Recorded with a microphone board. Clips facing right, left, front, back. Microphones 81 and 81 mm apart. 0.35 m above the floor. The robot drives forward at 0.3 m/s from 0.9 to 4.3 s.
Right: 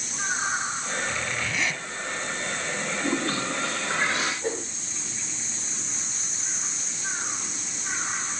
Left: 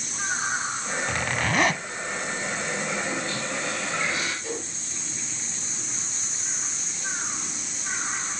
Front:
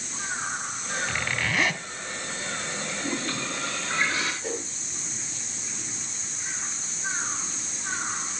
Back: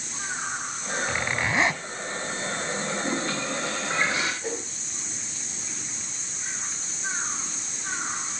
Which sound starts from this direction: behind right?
A whoosh, at 4.4 s.